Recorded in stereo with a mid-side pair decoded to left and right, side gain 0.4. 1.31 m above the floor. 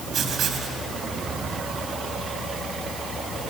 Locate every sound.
0.1 s writing: 65° right, 3 m